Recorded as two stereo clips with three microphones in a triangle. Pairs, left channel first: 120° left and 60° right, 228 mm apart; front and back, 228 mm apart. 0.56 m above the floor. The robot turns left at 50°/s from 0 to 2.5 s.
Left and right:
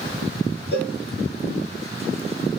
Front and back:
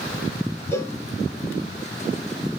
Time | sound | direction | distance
0.7 | a cowbell | 80° left | 1.8 m